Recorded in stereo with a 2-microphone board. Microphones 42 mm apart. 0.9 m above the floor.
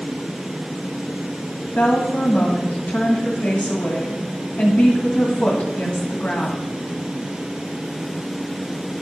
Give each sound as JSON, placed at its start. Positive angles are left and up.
{"t": 1.8, "sound": "a woman speaking", "side_deg": 40, "distance_m": 1.9}